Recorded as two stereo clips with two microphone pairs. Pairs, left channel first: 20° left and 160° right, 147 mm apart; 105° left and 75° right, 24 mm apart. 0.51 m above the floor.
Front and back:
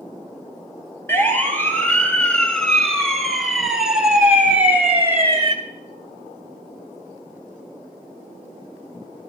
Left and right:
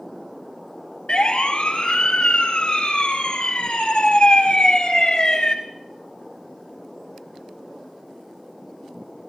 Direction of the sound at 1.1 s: 90° left.